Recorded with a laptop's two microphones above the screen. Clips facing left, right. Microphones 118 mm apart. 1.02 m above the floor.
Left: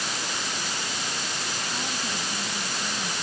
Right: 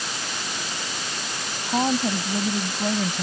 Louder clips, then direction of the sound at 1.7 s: Right 15 dB; 60° right (ahead or behind).